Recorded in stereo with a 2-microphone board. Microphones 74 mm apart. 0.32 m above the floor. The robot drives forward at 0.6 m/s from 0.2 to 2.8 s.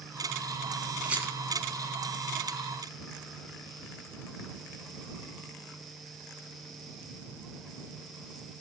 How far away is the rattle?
About 2.5 m.